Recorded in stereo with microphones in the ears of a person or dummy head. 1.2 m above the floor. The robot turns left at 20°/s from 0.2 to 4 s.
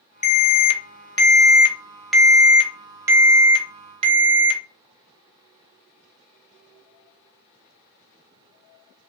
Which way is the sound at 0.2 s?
40° left.